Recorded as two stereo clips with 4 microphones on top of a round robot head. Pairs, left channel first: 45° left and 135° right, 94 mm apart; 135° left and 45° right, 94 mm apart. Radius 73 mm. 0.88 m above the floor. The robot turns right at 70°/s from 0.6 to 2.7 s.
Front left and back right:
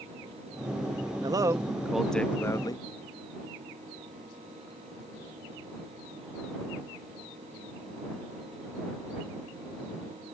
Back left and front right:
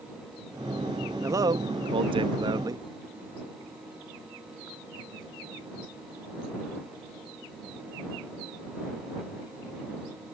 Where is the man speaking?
100° right; by 2.9 s straight ahead.